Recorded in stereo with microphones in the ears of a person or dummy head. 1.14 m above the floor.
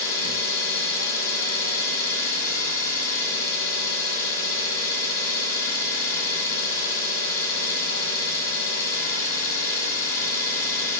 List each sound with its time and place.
0.0 s an engine running: 50° left (ahead or behind), 2.5 m